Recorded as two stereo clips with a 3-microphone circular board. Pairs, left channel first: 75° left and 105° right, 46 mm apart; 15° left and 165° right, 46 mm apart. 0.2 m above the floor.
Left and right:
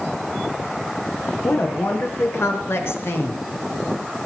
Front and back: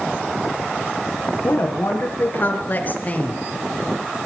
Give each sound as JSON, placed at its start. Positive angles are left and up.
{"t": 1.4, "sound": "a woman speaking", "azimuth_deg": 55, "distance_m": 4.5}